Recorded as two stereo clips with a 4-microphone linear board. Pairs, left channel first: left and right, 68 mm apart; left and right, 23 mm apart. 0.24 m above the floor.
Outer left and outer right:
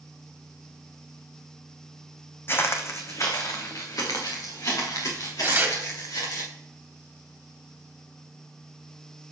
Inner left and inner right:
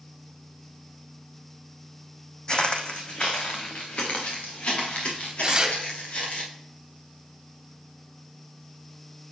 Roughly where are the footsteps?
Left.